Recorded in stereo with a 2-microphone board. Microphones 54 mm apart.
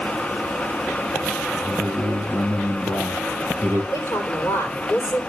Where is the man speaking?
80° left, 2 m.